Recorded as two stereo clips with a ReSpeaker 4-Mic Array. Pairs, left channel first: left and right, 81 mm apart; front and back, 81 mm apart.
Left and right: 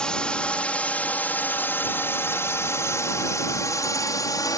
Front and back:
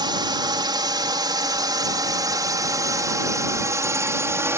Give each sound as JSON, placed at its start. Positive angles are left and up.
{"t": 0.0, "sound": "a drone", "azimuth_deg": 170}